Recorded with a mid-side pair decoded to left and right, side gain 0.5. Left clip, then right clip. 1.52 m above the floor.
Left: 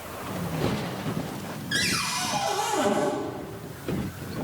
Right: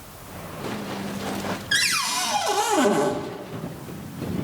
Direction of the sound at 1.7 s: 50° right.